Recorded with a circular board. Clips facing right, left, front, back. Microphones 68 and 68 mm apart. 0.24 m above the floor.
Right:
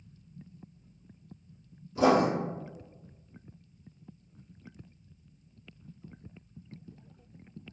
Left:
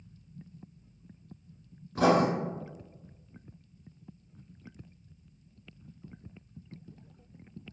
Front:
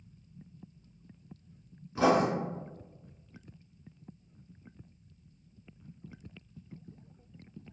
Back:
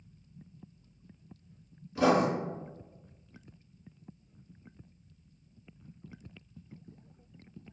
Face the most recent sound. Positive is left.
turn(degrees=65)